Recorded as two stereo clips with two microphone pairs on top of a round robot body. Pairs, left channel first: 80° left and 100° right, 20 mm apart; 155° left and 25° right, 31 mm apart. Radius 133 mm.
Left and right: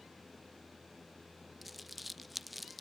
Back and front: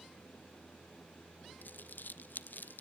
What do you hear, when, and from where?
1.6 s crumpling: 170° left, 0.5 m